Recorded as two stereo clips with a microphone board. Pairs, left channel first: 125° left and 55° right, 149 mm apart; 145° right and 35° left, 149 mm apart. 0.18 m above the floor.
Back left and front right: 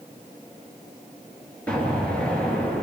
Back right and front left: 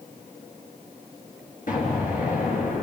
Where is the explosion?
155° right, 3.5 m.